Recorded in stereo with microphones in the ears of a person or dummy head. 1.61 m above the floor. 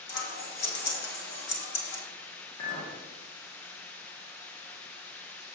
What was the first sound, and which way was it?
Scissors, 60° left (ahead or behind).